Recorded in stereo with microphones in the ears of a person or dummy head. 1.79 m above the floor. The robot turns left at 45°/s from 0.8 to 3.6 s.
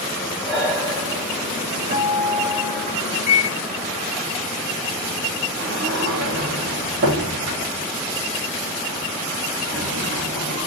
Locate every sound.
0.4 s breathing: 5° right (ahead or behind), 1.6 m; by 2.9 s 20° right (ahead or behind), 1.6 m
1.9 s a guitar: 95° right, 1.8 m; by 2.9 s 145° right, 1.8 m
3.3 s a microwave: 40° left (ahead or behind), 0.8 m
5.6 s a sliding door: 60° right (ahead or behind), 1.4 m